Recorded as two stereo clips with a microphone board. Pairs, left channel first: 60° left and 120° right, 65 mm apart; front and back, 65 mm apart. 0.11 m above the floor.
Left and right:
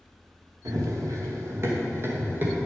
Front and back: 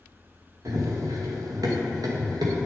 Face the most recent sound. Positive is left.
turn(degrees=180)